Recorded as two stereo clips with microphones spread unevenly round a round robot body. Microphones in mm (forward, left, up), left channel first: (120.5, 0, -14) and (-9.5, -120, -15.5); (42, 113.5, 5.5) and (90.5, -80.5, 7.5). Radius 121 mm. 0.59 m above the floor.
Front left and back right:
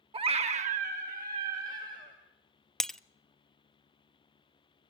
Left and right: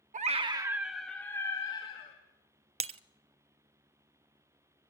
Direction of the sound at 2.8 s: 45° right.